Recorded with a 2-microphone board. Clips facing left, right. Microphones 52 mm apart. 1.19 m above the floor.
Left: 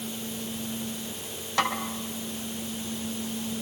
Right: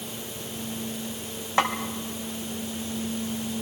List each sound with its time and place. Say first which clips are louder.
1.6 s a snare drum: right 3 dB; 25° right (ahead or behind), 2 m